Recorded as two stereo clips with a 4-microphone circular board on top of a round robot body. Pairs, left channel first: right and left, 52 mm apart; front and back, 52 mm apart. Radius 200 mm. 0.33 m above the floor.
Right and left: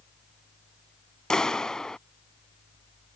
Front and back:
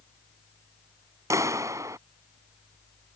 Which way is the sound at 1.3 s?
170° right.